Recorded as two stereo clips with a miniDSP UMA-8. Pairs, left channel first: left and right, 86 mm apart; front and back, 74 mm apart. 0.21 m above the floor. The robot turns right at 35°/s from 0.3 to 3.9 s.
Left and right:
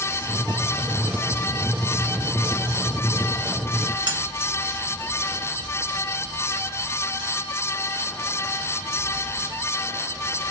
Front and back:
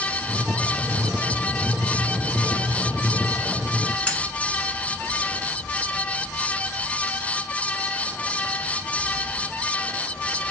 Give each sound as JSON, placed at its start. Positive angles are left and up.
{"t": 4.1, "sound": "cutlery clinking", "azimuth_deg": -70, "distance_m": 1.2}